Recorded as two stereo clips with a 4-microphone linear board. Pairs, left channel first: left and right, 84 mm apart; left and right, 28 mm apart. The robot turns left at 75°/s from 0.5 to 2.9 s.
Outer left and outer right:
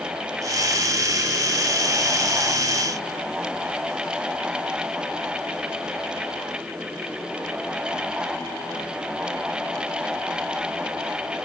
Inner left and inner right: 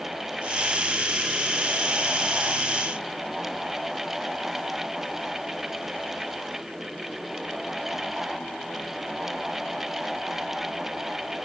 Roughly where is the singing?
No singing in this recording.